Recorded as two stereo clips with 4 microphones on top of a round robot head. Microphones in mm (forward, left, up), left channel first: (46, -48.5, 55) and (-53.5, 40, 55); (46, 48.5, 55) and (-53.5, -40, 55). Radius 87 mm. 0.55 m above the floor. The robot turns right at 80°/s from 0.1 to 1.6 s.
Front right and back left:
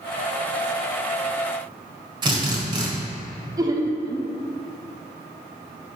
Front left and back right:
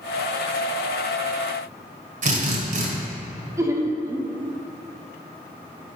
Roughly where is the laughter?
Behind.